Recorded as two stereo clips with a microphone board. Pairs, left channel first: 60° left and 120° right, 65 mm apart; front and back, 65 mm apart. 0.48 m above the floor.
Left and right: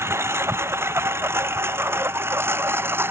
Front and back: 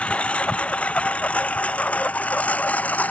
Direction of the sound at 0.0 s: 70° right.